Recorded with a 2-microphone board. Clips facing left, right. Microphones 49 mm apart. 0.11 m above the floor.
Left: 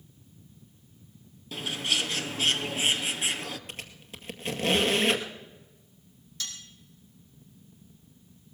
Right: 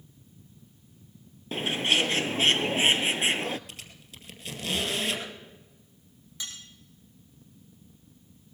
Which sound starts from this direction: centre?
Cutlery clinking, at 6.4 s.